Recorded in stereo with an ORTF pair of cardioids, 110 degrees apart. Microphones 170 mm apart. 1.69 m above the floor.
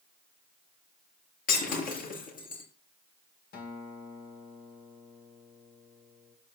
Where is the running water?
I don't hear running water.